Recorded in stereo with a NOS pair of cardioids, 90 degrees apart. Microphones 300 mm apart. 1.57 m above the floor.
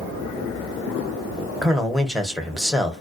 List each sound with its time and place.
1.6 s a man speaking: straight ahead, 0.9 m